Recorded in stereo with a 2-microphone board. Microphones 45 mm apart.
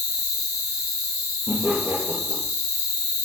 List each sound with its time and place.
0.0 s an insect: 40° right (ahead or behind), 3 m
1.5 s laughter: 70° right (ahead or behind), 4 m